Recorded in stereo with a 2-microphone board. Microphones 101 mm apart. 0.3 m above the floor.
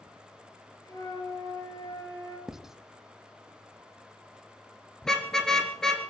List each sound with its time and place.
0.8 s a flute: 40° left (ahead or behind), 6.5 m
2.5 s writing: 5° right (ahead or behind), 0.6 m
5.0 s a car horn: 5° left (ahead or behind), 2.5 m